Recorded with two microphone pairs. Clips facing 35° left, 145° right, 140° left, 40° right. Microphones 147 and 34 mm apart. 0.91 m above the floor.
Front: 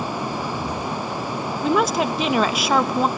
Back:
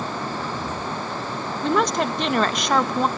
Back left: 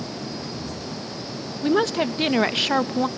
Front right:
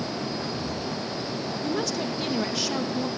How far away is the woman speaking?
About 0.8 m.